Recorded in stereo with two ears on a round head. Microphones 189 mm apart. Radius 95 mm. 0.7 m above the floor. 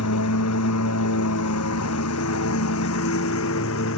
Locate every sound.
0.0 s a lawn mower: 85° left; by 4.0 s 65° left (ahead or behind)